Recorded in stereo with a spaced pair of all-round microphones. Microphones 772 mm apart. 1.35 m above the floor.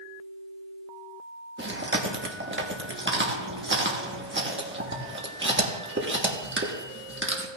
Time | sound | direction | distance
1.6 | chewing | 15° right (ahead or behind) | 1.3 m